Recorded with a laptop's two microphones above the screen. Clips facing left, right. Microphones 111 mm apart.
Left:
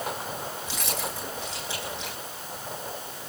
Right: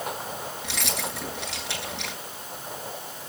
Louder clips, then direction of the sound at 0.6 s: Right 2 dB; 80° right.